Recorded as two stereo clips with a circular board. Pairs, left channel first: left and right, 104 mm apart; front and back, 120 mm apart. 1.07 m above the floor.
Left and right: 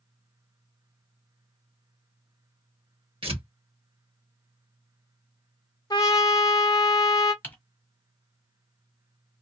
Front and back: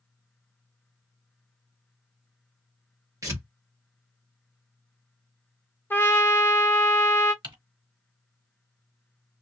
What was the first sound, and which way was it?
Tearing paper, 120° right.